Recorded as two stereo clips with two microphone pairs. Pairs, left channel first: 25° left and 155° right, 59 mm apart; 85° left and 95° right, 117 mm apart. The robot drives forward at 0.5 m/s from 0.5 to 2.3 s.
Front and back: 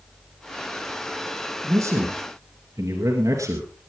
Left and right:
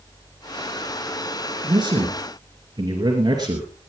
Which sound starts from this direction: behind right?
A man speaking, at 1.6 s.